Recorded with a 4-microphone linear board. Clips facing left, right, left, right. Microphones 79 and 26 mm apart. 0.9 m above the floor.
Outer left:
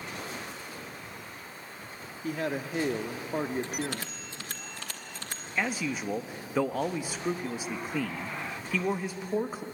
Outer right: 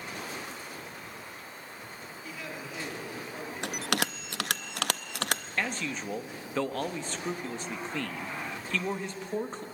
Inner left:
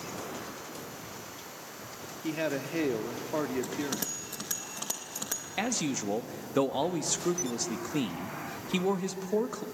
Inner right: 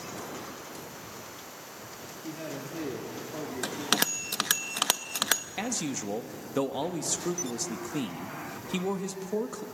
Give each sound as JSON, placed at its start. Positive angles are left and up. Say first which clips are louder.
{"t": 2.2, "sound": "a man speaking", "louder": "outer left 10 dB, inner left 7 dB", "side_deg": 55, "distance_m": 1.4}
{"t": 3.6, "sound": "a bell", "louder": "outer right 3 dB, inner right 5 dB", "side_deg": -80, "distance_m": 0.6}
{"t": 5.6, "sound": "a man speaking", "louder": "outer left 7 dB, inner left 2 dB", "side_deg": 10, "distance_m": 1.1}